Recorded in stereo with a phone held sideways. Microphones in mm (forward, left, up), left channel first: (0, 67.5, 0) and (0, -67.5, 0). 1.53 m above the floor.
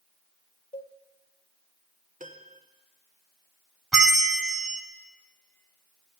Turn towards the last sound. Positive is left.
turn(degrees=-5)  # may be behind; listen again after turning